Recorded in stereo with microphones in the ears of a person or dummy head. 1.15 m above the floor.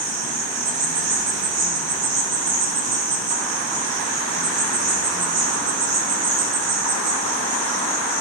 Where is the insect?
65° right (ahead or behind), 1.3 m.